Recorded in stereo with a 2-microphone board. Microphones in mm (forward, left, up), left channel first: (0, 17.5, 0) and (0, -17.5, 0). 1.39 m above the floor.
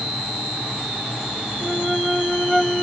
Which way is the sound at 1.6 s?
Centre (ahead or behind).